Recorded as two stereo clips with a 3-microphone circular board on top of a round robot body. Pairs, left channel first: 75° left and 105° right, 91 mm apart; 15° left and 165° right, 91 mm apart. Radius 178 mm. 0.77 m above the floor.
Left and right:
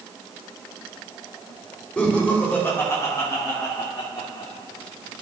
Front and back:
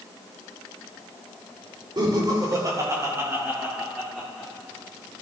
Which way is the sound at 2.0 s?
155° left.